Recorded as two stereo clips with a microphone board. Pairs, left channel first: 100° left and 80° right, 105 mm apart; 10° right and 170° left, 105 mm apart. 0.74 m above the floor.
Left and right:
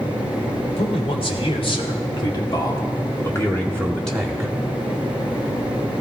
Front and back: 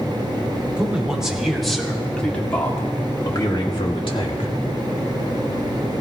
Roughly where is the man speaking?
Left.